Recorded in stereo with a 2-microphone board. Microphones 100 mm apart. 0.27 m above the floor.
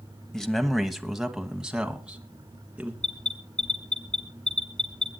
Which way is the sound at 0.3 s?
5° left (ahead or behind).